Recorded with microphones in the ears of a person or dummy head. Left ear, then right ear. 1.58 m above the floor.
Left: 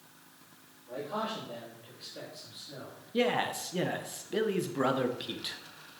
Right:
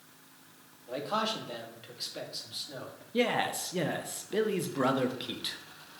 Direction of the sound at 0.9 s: 70° right (ahead or behind).